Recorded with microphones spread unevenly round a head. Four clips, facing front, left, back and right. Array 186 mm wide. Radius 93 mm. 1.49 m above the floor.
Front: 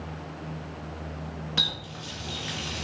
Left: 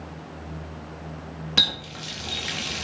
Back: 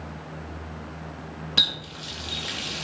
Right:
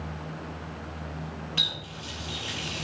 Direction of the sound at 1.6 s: 100° left.